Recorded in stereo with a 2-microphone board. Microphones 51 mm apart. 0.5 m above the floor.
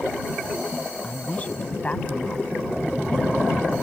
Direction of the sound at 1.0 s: 30° left (ahead or behind).